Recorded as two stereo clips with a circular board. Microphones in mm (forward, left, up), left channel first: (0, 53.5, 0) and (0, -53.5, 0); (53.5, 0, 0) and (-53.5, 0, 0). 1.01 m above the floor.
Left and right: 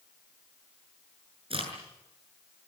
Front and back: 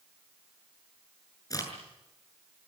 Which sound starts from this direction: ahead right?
A crack, at 1.5 s.